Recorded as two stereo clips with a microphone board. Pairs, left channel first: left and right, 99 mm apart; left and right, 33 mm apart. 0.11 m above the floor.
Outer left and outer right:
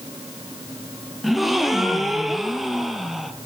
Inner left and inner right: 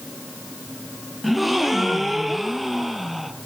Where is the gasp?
5° right (ahead or behind), 0.6 m.